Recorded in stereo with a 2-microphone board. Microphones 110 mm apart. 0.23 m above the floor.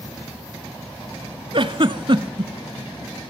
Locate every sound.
1.5 s a giggle: 50° right (ahead or behind), 0.7 m